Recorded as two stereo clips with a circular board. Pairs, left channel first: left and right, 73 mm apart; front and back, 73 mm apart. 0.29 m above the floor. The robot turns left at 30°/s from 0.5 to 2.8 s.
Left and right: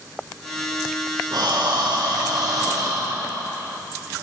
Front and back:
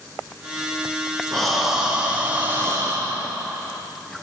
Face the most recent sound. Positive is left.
turn(degrees=-130)